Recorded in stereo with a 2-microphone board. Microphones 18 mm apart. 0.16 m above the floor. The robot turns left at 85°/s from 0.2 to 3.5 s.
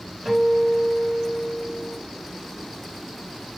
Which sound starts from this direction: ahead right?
A guitar, at 0.2 s.